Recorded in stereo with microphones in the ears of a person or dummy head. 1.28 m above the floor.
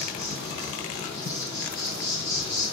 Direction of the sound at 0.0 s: 35° left (ahead or behind).